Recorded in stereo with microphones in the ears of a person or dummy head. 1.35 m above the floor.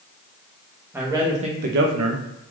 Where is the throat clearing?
No throat clearing in this recording.